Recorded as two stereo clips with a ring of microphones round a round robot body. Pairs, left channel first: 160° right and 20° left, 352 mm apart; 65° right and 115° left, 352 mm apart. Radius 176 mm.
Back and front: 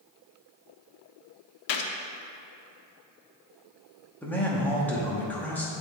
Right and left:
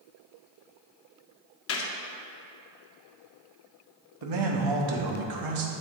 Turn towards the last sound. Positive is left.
turn(degrees=120)